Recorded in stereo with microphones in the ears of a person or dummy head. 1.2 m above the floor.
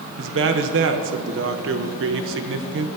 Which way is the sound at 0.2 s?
65° right (ahead or behind).